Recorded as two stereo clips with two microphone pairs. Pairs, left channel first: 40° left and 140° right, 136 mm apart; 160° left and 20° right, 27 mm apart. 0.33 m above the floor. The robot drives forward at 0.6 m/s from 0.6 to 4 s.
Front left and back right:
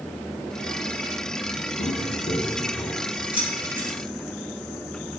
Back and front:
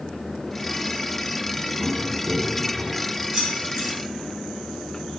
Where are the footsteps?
30° left, 1.8 m; by 3.1 s 90° left, 2.5 m.